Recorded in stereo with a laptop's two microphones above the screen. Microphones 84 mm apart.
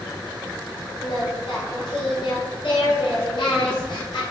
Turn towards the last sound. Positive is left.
turn(degrees=70)  # may be behind; listen again after turning